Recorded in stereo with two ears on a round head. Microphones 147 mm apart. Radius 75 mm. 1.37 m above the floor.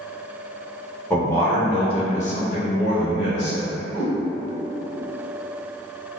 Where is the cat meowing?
10° right (ahead or behind), 1.3 m.